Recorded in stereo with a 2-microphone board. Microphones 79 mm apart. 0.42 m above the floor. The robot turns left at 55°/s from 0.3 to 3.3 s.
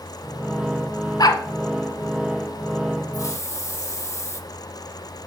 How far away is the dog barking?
About 1.0 m.